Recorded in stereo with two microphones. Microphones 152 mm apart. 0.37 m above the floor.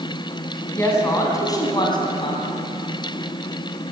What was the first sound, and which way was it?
A woman speaking, 15° left (ahead or behind).